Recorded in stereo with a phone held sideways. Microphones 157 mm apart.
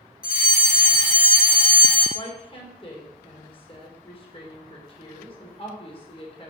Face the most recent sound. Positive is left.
turn(degrees=35)  # may be behind; listen again after turning